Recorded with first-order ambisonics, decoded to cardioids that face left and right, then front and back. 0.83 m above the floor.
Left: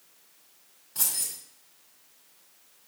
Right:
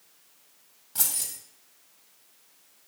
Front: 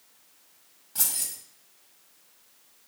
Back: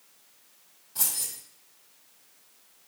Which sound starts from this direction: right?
Keys jangling, at 0.9 s.